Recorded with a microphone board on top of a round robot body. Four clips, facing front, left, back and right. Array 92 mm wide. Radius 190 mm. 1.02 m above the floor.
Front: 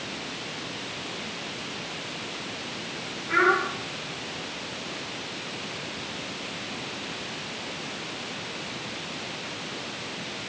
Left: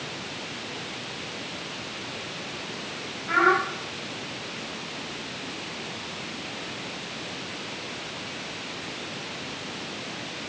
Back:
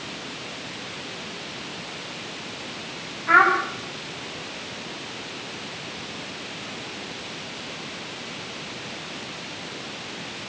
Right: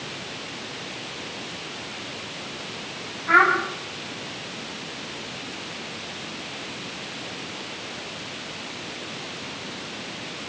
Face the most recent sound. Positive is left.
turn(degrees=-155)